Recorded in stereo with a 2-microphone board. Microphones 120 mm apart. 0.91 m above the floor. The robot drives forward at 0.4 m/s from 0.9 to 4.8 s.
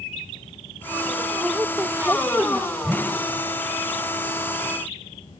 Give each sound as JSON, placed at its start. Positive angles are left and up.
{"t": 1.4, "sound": "a woman speaking", "side_deg": -15}
{"t": 2.8, "sound": "a whoosh", "side_deg": -5}